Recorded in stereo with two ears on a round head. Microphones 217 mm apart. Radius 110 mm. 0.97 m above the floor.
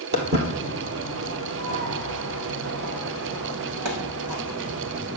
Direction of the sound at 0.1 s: 40° right (ahead or behind).